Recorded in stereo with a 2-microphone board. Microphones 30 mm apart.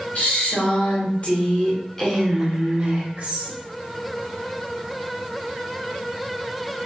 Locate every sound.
0.1 s a woman speaking: 65° left (ahead or behind), 1.9 m; by 3.6 s 50° right (ahead or behind), 1.3 m